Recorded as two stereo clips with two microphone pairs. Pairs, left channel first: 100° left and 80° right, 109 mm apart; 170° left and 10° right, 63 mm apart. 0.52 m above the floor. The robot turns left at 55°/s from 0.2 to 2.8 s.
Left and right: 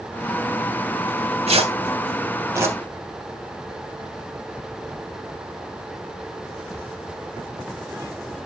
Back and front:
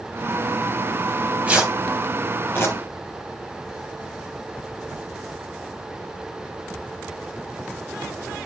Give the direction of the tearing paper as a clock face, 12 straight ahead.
2 o'clock.